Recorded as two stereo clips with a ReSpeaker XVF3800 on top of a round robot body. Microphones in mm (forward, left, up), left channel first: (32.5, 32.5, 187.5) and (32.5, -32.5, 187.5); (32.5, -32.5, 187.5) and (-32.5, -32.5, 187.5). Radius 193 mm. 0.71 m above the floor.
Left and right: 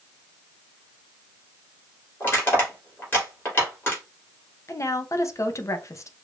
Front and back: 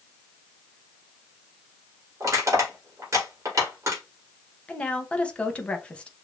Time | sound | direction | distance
2.2 | crushing | 145° left | 2.5 m
4.7 | a woman speaking | 65° left | 1.1 m